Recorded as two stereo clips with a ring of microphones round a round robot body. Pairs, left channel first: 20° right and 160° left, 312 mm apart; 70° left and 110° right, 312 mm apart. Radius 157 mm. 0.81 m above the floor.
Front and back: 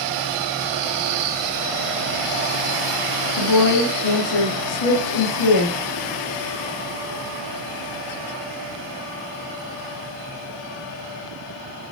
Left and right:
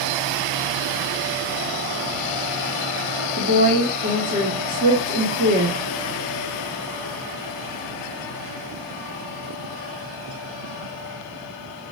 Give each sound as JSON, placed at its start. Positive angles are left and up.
{"t": 3.4, "sound": "a woman speaking", "azimuth_deg": -45, "distance_m": 1.5}